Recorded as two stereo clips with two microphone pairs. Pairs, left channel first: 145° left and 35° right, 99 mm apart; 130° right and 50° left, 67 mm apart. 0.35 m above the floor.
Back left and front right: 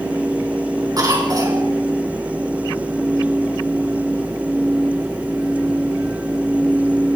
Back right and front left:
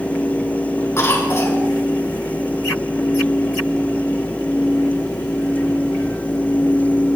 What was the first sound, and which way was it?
A cough, 85° right.